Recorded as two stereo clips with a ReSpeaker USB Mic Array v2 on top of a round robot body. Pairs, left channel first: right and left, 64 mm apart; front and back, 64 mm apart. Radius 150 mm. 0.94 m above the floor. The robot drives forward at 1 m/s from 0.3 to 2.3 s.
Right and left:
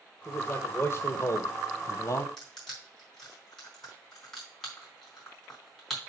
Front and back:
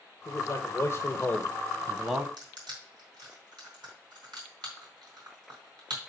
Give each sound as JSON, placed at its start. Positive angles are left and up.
{"t": 0.2, "sound": "a man speaking", "azimuth_deg": -30, "distance_m": 1.9}
{"t": 2.4, "sound": "crushing", "azimuth_deg": -175, "distance_m": 3.5}